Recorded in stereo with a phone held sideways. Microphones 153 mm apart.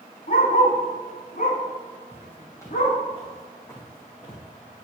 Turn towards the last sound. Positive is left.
turn(degrees=30)  # may be behind; listen again after turning